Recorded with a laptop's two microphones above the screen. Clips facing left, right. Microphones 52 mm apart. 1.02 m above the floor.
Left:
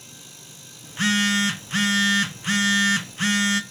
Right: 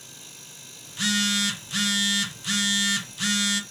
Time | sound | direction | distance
0.8 | a phone buzzing | 35° left (ahead or behind) | 0.6 m